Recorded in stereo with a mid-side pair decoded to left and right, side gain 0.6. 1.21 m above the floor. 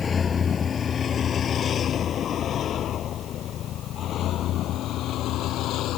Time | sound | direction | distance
0.0 | a vehicle | 30° left | ?